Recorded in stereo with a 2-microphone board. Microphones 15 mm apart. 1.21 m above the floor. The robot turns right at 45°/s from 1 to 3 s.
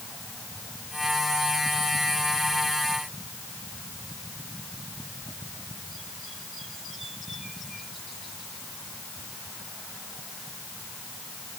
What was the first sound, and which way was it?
Only background noise.